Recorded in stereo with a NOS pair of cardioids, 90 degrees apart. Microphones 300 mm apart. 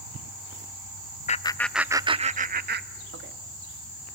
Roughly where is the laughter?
Ahead left.